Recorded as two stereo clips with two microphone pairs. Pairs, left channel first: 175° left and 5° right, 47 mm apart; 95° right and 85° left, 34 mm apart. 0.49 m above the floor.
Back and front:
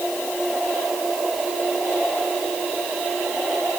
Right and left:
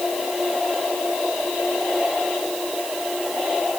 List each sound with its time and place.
Only background noise.